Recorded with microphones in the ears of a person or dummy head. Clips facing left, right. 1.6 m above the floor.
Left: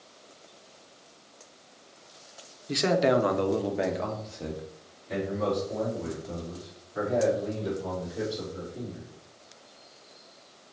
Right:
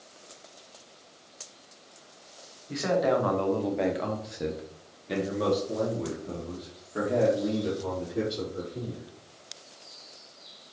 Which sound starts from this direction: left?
A man speaking, at 2.7 s.